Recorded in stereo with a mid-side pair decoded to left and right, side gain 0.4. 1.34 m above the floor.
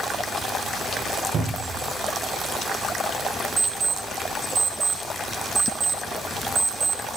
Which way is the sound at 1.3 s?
55° right.